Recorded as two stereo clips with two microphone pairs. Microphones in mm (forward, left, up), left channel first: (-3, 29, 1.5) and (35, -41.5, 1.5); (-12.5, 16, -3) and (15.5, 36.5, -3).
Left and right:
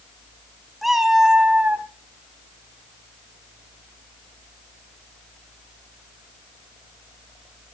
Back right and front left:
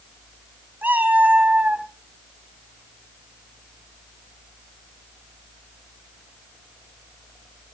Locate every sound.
0.8 s a cat meowing: 25° left, 1.6 m; by 1.9 s straight ahead, 1.1 m